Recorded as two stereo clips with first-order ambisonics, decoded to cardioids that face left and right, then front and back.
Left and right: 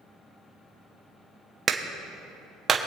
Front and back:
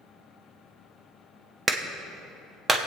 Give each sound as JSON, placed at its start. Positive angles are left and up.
{"t": 1.7, "sound": "a clap", "azimuth_deg": -125, "distance_m": 0.7}